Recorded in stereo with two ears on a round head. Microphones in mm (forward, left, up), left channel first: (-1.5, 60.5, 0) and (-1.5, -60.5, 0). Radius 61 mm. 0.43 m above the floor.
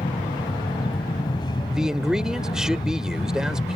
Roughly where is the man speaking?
Centre.